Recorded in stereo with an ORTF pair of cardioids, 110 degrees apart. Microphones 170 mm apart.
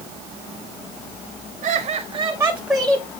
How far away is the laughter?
About 1.0 m.